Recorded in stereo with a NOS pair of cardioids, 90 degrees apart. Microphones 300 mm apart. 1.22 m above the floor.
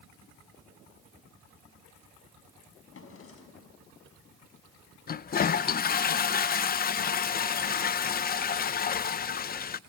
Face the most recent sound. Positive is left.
turn(degrees=30)